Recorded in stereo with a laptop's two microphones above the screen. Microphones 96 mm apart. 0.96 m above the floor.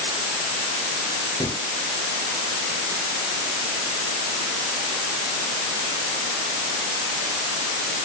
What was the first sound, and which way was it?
A gunshot, 45° left (ahead or behind).